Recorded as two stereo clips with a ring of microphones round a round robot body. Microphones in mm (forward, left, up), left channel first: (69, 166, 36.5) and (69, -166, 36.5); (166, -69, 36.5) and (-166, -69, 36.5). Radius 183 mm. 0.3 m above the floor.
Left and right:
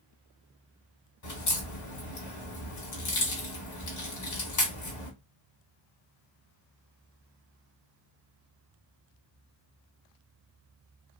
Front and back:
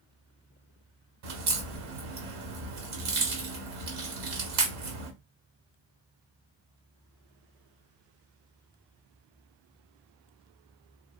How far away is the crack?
About 1.0 m.